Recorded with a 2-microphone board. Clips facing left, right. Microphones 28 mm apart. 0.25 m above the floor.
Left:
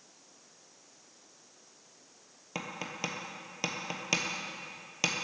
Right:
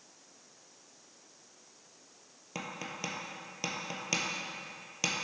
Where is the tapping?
20° left (ahead or behind), 0.9 m.